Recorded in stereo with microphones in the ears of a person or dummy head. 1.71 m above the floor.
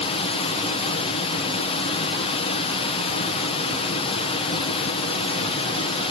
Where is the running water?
30° left (ahead or behind), 0.9 m.